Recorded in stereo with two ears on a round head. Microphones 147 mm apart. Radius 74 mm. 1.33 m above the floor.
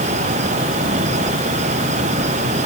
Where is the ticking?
I don't hear ticking.